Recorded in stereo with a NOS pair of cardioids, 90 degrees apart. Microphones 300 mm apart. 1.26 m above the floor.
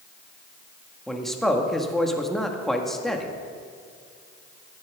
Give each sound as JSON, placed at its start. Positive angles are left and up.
{"t": 1.1, "sound": "a man speaking", "azimuth_deg": 0, "distance_m": 1.8}